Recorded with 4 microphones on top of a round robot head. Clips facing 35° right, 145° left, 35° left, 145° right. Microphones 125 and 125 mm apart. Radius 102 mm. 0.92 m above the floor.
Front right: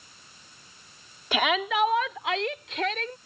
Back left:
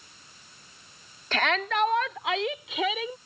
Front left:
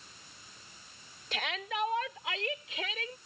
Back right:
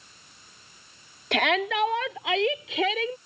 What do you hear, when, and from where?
1.3 s a shout: 115° right; by 3.2 s 135° right